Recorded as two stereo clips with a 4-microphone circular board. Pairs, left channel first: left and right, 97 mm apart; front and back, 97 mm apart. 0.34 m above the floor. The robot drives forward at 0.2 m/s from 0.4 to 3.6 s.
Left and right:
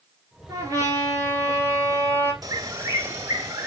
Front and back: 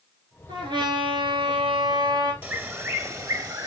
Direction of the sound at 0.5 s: 150° right.